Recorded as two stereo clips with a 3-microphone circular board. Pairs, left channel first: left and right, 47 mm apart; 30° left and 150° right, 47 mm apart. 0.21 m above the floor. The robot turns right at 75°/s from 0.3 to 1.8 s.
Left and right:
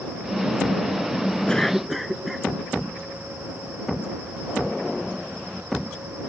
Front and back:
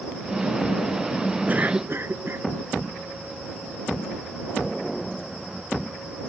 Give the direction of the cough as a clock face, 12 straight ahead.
7 o'clock.